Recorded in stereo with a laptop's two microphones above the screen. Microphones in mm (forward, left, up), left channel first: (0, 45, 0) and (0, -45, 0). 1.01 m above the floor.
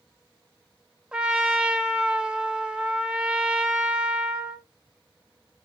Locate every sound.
1.1 s a trumpet: 10° right (ahead or behind), 1.0 m